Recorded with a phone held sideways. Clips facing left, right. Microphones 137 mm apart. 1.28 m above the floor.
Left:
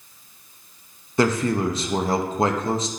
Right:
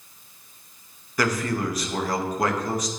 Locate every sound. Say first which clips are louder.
1.2 s a man speaking: left 4 dB; 25° left (ahead or behind), 0.6 m